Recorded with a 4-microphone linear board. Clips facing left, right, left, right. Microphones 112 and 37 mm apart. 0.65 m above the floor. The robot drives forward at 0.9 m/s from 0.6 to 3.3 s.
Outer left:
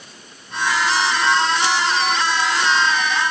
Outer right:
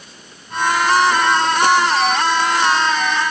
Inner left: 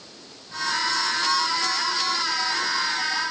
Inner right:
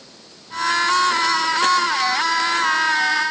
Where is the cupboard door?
No cupboard door in this recording.